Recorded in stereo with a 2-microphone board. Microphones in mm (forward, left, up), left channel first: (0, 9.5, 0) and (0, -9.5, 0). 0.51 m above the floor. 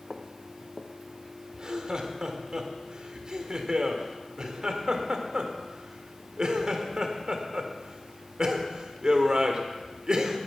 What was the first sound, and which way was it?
Footsteps, 30° left (ahead or behind).